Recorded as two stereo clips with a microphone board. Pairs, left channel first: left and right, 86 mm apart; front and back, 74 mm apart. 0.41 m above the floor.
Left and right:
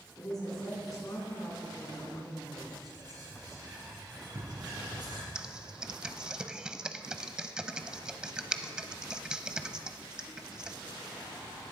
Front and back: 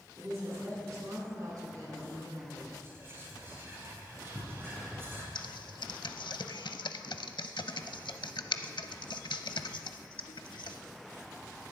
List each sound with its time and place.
0.2 s a woman speaking: 135° left, 4.5 m; by 2.7 s 145° left, 3 m
2.8 s whispering: 125° right, 4.5 m
5.3 s typing on a keyboard: 10° right, 0.6 m